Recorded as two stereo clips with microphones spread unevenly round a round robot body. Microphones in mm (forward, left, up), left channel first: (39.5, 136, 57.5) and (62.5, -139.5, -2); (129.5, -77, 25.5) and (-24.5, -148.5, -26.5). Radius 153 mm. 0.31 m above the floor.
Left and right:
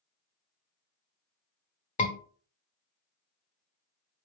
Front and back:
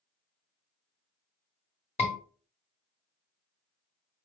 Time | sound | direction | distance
2.0 | a scream | 50° left | 1.4 m